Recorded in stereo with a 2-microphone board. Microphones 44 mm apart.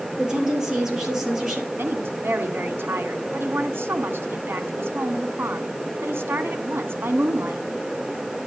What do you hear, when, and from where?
0.2 s a woman speaking: 15° right (ahead or behind), 6 m; by 1.7 s 10° right (ahead or behind), 5.5 m
1.8 s a woman speaking: 60° right (ahead or behind), 1.9 m